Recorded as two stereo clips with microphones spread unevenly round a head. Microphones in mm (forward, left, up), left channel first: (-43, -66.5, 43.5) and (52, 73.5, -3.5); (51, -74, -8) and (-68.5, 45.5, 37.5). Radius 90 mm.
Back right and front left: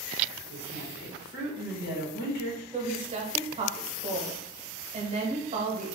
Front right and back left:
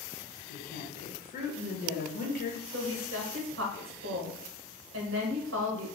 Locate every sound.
0.5 s a woman speaking: 85° right, 1.1 m
2.7 s a woman speaking: 115° left, 0.8 m